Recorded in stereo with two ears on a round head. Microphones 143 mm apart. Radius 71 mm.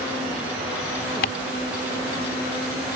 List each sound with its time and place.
1.2 s ticking: 60° left (ahead or behind)